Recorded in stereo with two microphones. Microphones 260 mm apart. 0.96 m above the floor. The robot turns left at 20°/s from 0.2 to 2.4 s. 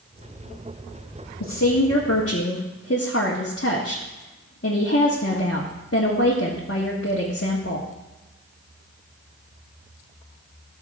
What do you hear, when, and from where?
1.4 s a woman speaking: 70° left (ahead or behind), 1.5 m; by 7.9 s 50° left (ahead or behind), 1.5 m